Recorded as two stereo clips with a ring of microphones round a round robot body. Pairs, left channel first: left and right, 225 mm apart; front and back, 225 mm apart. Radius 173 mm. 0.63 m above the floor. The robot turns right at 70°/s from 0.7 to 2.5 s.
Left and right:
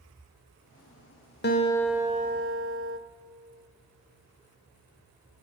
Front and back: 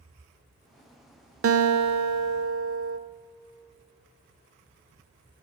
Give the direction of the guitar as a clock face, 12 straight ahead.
7 o'clock.